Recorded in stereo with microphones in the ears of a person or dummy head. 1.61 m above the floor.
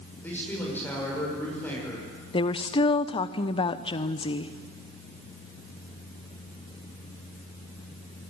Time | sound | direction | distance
0.2 | a man speaking | 15° left (ahead or behind) | 7 m
2.3 | a woman speaking | 25° left (ahead or behind) | 0.9 m